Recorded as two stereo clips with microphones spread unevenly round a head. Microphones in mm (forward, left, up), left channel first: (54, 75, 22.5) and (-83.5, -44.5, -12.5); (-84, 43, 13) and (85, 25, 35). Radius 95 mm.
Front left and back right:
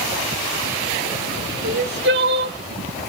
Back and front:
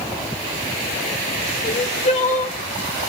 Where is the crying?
140° right, 1.2 m.